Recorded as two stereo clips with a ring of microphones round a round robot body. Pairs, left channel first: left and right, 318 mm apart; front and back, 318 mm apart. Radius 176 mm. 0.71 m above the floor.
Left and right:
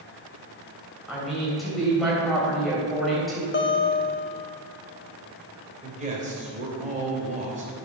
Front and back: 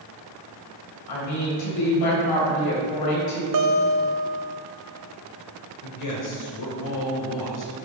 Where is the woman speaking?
Straight ahead, 3 m.